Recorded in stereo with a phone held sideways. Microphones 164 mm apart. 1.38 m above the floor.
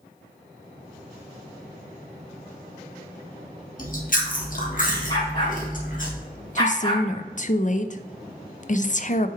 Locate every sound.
3.8 s chewing: 55° left (ahead or behind), 1.4 m
5.1 s a dog barking: 30° left (ahead or behind), 3.5 m
6.5 s a woman speaking: 50° left (ahead or behind), 0.5 m